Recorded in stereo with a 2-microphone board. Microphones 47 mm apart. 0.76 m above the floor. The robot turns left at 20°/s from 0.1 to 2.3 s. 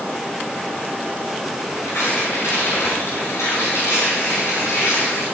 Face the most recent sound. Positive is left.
turn(degrees=80)